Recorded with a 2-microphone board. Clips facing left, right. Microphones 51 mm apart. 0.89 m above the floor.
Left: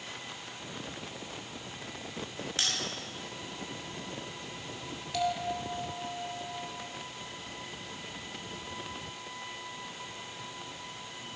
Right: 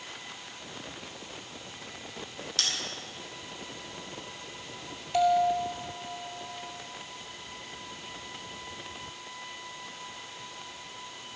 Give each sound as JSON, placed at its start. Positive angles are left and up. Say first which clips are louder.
{"t": 2.6, "sound": "a bell", "louder": "even", "side_deg": 25, "distance_m": 4.5}
{"t": 5.1, "sound": "a bell", "louder": "right 8 dB", "side_deg": -35, "distance_m": 2.0}